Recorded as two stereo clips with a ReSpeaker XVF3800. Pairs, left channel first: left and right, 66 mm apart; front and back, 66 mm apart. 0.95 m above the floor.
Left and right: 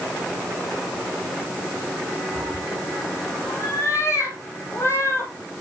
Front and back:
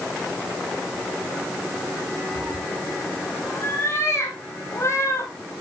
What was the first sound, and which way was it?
A cat meowing, 50° left.